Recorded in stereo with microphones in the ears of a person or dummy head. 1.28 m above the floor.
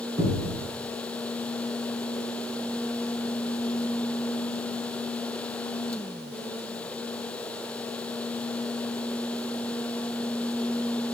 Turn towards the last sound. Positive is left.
turn(degrees=-25)  # may be behind; listen again after turning